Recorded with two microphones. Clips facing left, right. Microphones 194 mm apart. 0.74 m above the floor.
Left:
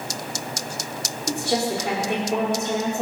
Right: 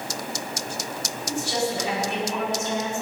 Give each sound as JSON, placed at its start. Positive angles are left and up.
{"t": 1.3, "sound": "a woman speaking", "side_deg": 50, "distance_m": 2.5}